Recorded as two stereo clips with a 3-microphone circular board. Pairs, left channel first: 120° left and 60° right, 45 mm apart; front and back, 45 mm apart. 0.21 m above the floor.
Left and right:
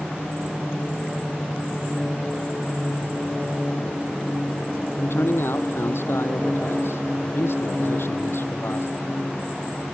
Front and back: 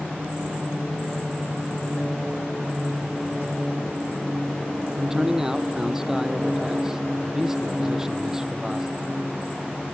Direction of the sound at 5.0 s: 100° left.